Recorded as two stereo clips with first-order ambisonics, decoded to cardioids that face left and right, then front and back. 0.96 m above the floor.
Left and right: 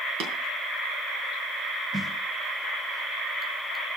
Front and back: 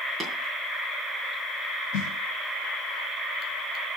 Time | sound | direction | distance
0.2 | tapping | 100° right | 5 m
1.9 | a snare drum | 10° right | 1.9 m